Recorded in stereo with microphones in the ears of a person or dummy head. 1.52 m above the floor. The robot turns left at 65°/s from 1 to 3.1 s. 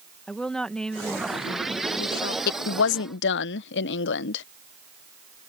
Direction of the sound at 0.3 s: 170° left.